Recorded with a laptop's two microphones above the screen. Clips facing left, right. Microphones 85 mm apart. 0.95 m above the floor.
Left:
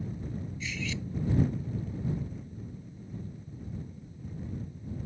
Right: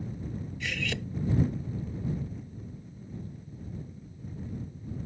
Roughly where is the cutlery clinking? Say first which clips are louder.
Right 4 dB; right.